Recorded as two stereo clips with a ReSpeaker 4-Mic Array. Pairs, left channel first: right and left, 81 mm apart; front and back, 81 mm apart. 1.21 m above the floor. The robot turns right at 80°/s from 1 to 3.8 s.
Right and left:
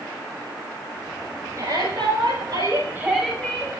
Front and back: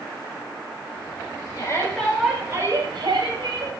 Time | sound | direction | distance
1.6 | a shout | 40° left | 6 m